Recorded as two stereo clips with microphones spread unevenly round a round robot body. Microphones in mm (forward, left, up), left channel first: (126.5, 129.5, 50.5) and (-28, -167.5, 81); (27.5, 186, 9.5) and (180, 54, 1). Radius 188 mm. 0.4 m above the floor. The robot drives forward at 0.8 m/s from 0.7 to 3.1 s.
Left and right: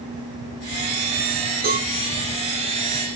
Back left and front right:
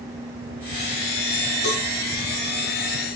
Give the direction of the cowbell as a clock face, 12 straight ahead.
6 o'clock.